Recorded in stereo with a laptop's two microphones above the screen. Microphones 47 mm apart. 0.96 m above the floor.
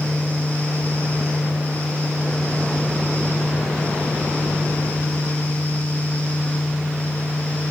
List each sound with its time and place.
0.0 s a fan: 45° left (ahead or behind), 8 m